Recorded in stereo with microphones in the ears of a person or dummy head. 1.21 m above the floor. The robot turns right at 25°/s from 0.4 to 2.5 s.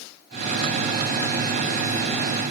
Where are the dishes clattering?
I don't hear dishes clattering.